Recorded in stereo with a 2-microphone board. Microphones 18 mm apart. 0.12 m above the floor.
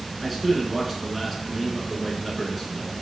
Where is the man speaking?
5° left (ahead or behind), 1.1 m.